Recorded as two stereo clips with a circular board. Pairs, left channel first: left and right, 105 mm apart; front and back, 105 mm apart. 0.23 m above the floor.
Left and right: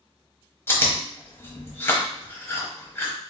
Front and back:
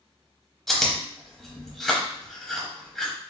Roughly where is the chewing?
Left.